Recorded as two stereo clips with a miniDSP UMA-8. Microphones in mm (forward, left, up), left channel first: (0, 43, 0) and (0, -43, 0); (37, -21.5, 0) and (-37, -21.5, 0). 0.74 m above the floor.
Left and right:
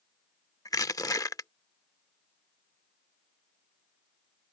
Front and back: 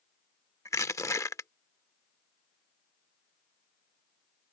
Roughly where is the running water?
I don't hear running water.